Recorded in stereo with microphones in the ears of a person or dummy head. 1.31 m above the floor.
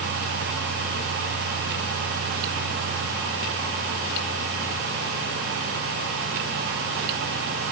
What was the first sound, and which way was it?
Only background noise.